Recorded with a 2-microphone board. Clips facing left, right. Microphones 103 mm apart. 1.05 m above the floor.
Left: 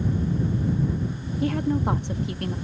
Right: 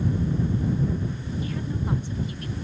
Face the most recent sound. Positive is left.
turn(degrees=65)  # may be behind; listen again after turning